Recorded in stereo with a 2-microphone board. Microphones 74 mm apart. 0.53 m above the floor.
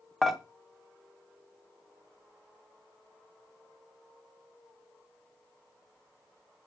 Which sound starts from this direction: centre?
Dishes clattering, at 0.2 s.